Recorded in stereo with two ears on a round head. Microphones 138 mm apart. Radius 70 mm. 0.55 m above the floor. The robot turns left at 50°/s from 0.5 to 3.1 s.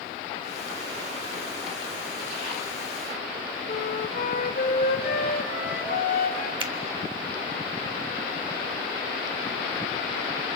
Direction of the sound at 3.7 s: 60° left (ahead or behind).